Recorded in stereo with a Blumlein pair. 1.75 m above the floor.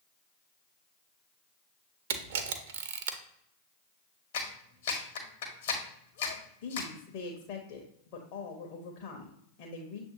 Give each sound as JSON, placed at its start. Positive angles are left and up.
{"t": 2.1, "sound": "a camera shutter", "azimuth_deg": -55, "distance_m": 0.6}
{"t": 4.3, "sound": "a clap", "azimuth_deg": 60, "distance_m": 1.3}
{"t": 6.6, "sound": "a woman speaking", "azimuth_deg": 45, "distance_m": 0.9}